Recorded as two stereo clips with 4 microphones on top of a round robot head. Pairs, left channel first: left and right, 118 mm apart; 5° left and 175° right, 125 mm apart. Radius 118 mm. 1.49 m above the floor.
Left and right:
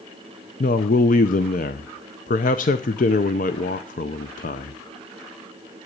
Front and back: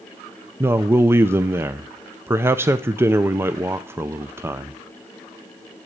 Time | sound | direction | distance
0.6 | a man speaking | 115° left | 0.6 m